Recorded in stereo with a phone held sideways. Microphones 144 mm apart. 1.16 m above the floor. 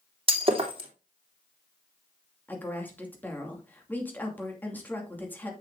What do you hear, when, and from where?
0.3 s breaking glass: 40° right (ahead or behind), 2.5 m
2.5 s a woman speaking: 15° left (ahead or behind), 2.5 m